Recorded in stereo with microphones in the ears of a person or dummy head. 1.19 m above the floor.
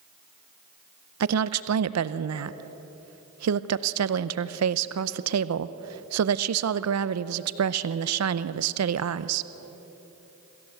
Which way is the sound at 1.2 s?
85° right.